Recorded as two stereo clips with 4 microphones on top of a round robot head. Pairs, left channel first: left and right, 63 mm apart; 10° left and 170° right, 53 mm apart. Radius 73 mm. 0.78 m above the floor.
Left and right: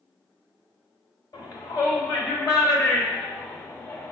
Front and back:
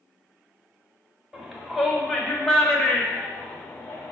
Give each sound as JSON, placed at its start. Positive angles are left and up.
{"t": 1.3, "sound": "a shout", "azimuth_deg": 105, "distance_m": 2.5}